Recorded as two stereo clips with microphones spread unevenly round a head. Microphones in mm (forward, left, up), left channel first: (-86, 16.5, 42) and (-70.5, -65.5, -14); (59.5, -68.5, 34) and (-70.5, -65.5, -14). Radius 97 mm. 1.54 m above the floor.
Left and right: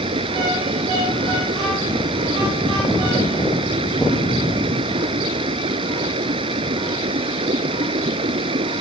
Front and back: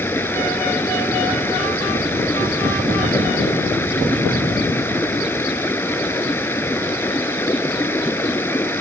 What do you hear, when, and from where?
0.0 s running water: 75° right